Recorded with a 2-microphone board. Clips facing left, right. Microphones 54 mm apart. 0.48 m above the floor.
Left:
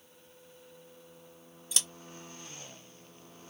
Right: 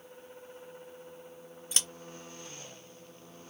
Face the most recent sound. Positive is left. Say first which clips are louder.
# right 1 dB
turn(degrees=-40)  # may be behind; listen again after turning